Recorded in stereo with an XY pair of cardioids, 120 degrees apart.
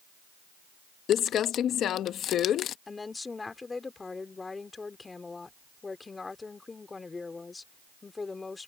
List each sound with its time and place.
1.1 s crumpling: 60° left
2.9 s a woman speaking: 20° left